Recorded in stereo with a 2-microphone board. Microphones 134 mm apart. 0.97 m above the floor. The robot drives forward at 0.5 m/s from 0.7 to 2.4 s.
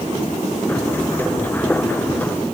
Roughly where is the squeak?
I don't hear a squeak.